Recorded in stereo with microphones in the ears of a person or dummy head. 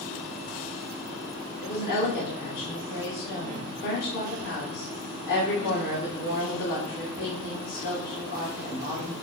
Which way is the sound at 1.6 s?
55° left (ahead or behind).